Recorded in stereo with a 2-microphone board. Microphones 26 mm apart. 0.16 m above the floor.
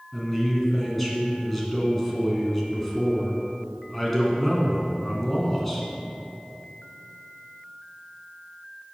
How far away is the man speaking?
About 1.6 m.